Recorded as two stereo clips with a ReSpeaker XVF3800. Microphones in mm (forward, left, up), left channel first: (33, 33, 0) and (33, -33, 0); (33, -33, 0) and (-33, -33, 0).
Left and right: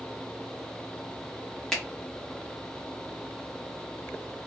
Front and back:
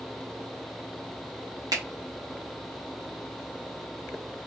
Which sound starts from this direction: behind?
A finger snap, at 1.7 s.